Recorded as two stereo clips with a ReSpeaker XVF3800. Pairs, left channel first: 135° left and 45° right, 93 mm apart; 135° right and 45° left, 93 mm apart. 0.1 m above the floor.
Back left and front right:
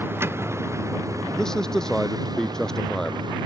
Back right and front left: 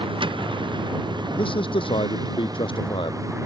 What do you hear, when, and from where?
0.0 s a vehicle: 20° left; by 3.5 s 10° right
1.4 s a man speaking: 140° right